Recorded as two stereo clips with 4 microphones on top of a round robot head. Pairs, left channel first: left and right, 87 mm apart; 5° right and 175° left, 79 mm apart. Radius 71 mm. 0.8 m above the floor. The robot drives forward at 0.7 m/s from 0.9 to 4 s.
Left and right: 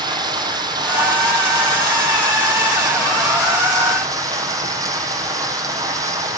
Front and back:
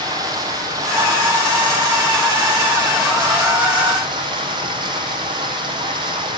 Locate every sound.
0.0 s running water: 130° right, 7 m; by 6.4 s 140° right, 8.5 m